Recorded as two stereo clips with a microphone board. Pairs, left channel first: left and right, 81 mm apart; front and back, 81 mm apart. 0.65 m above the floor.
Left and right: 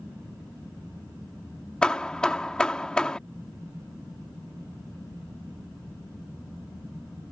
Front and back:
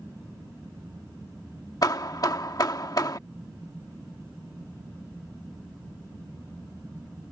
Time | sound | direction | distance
1.8 | hammering | 10° left | ?